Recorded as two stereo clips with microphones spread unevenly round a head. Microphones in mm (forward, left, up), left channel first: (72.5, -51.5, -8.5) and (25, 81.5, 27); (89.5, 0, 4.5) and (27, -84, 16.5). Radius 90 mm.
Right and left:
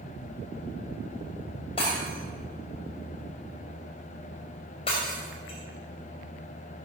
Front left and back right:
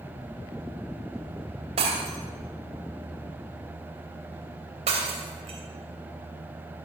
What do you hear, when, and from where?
1.8 s breaking glass: 135° right, 3 m